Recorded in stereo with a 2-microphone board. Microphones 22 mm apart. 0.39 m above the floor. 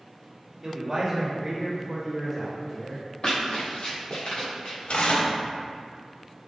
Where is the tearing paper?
75° left (ahead or behind), 0.6 m.